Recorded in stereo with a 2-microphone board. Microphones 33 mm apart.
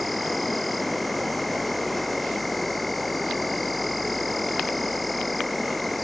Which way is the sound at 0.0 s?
5° left (ahead or behind).